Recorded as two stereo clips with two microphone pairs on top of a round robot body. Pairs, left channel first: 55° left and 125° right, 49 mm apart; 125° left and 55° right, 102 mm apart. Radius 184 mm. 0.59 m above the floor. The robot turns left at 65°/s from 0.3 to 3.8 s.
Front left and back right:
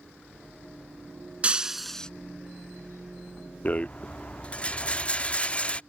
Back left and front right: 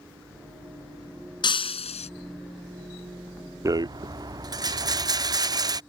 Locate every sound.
1.4 s breaking glass: 170° left; by 2.1 s 130° left
3.6 s a rattle: straight ahead; by 5.8 s 10° right